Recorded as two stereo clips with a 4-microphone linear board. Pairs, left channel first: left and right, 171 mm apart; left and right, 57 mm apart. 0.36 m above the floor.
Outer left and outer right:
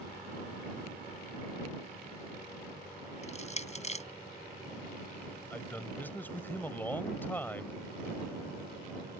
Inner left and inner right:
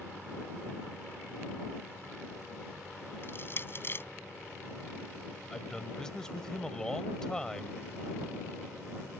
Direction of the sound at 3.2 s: 40° left (ahead or behind).